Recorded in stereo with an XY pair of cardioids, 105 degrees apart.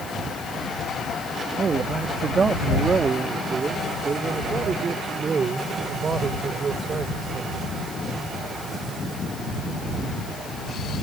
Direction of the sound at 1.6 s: 40° right.